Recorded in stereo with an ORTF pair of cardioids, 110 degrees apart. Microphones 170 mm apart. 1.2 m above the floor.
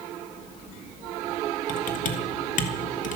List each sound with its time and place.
1.7 s typing on a keyboard: 55° left, 2 m